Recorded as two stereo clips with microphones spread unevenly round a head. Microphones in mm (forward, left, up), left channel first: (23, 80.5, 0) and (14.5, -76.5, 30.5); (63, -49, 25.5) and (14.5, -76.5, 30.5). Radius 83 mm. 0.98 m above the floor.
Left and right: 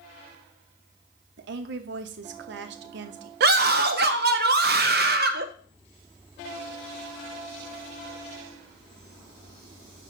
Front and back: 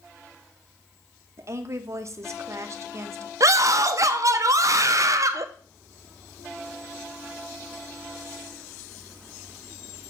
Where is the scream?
125° right, 0.7 m.